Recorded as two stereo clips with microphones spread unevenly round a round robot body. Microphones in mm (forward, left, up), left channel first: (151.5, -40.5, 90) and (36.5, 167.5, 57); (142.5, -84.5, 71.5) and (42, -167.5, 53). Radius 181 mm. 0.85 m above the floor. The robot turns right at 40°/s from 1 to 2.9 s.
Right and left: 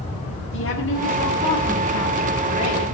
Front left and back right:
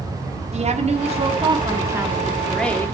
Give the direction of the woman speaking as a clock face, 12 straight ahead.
4 o'clock.